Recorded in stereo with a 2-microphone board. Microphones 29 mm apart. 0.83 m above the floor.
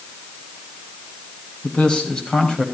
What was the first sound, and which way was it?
A man speaking, 30° left (ahead or behind).